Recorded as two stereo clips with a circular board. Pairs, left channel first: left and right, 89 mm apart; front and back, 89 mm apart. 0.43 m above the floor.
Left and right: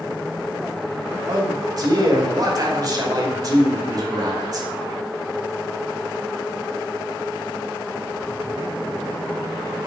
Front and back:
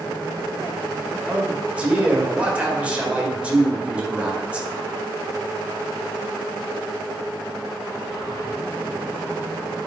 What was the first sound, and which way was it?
A man speaking, 110° right.